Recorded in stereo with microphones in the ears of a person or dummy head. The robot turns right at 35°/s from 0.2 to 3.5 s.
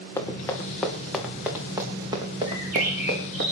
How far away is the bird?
About 6 m.